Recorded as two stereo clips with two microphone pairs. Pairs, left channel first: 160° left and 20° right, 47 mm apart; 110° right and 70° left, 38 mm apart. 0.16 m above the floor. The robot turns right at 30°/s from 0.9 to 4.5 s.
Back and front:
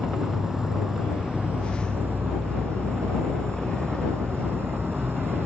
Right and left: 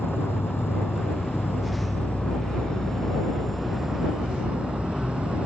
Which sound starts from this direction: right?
An insect, at 0.0 s.